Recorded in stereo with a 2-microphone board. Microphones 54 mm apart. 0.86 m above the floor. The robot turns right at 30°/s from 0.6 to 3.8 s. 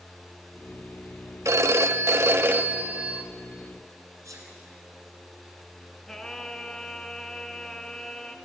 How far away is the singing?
About 1.5 m.